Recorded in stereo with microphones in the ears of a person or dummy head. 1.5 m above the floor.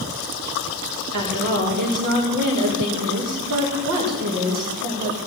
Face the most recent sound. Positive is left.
turn(degrees=-45)  # may be behind; listen again after turning